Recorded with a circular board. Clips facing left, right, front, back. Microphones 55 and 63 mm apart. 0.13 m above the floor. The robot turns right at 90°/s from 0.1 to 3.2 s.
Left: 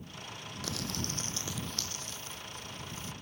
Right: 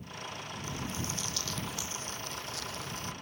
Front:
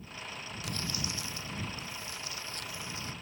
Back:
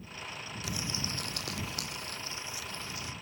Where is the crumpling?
90° left; by 3.1 s 50° right.